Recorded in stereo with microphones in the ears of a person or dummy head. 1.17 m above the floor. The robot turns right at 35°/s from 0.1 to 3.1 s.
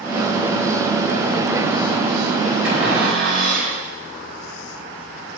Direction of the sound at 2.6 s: 10° right (ahead or behind).